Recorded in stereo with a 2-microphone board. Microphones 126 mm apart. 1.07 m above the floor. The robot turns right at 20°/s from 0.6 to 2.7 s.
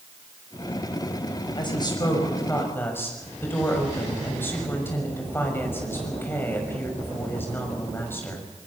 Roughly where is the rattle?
No rattle in this recording.